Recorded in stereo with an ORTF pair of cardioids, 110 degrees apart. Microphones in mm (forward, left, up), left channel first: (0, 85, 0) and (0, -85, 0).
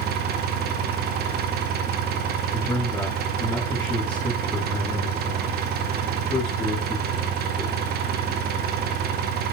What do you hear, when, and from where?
0.0 s an engine running: 70° right, 1.8 m
2.5 s a man speaking: 10° left, 8.5 m